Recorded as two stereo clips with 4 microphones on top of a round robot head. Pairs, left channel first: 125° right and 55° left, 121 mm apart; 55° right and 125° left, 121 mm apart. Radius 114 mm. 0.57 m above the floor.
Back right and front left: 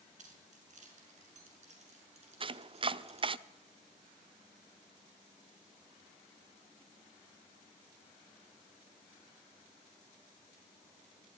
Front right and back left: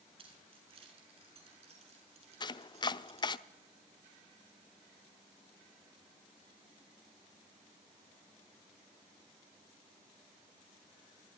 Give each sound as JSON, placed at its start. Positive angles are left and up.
{"t": 0.2, "sound": "keys jangling", "azimuth_deg": 80, "distance_m": 6.5}
{"t": 2.4, "sound": "chopping", "azimuth_deg": 5, "distance_m": 0.6}